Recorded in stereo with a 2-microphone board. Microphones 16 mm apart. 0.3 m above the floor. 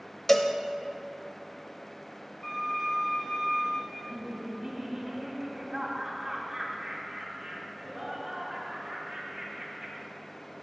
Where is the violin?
65° left (ahead or behind), 3 m.